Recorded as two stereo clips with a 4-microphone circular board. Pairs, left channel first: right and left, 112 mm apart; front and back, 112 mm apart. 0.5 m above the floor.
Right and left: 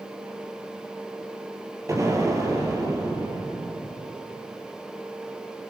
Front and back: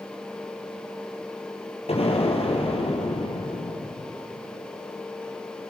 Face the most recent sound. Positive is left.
turn(degrees=30)